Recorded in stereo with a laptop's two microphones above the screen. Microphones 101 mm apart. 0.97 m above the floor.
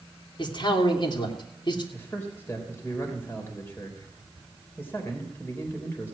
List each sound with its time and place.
0.4 s a man speaking: 50° left (ahead or behind), 2.5 m
1.9 s a man speaking: 20° left (ahead or behind), 3 m